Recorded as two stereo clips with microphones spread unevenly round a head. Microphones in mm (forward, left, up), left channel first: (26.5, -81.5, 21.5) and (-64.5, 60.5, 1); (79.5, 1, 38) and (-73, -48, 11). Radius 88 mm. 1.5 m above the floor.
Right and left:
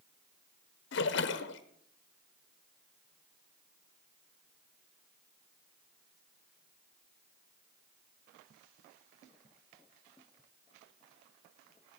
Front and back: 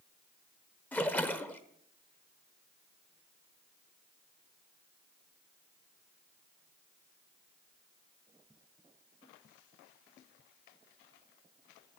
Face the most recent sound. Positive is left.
turn(degrees=-60)